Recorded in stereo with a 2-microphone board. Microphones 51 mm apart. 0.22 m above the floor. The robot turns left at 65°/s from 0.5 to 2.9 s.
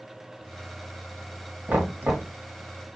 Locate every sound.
1.7 s knocking: 55° right, 1.7 m; by 2.3 s 95° right, 1.7 m